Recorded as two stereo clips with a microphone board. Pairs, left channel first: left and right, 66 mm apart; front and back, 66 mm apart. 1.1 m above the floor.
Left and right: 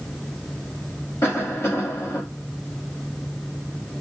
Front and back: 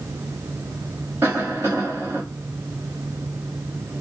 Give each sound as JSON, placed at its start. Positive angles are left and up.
{"t": 1.2, "sound": "a cough", "azimuth_deg": 120, "distance_m": 2.0}